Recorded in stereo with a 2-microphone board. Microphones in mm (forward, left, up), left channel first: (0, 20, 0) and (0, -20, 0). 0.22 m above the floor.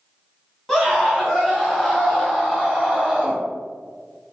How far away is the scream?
About 1.7 m.